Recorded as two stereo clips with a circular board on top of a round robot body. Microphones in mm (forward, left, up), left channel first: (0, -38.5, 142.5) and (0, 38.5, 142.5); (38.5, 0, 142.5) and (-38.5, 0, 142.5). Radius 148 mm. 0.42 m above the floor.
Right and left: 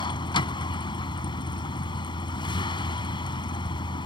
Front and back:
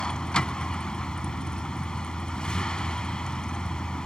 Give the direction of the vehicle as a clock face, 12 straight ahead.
3 o'clock.